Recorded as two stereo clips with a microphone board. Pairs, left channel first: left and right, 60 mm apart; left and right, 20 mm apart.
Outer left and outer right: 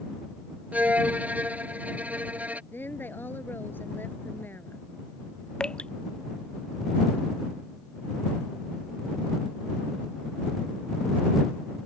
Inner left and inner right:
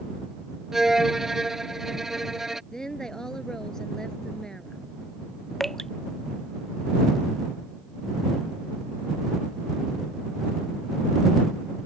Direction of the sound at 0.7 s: 25° right (ahead or behind).